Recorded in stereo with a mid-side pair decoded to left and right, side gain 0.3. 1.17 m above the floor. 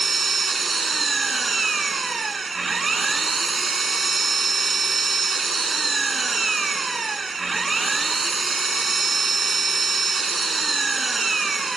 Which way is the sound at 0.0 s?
40° right.